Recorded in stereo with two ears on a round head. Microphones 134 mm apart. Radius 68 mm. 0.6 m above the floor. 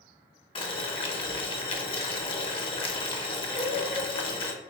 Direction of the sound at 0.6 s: 40° left (ahead or behind).